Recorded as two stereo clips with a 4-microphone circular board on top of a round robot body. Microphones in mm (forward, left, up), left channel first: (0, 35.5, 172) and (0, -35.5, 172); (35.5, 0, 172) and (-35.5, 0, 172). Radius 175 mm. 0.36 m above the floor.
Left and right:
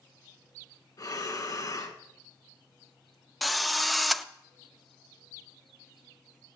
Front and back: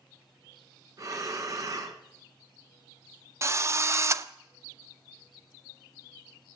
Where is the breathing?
135° left, 1.9 m.